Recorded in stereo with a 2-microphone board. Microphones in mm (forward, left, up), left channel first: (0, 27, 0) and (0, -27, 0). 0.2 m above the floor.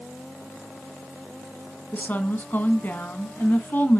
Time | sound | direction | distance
1.9 | a woman speaking | 40° left (ahead or behind) | 1.7 m